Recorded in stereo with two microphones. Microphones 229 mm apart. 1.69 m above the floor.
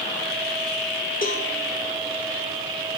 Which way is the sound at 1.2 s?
40° left (ahead or behind).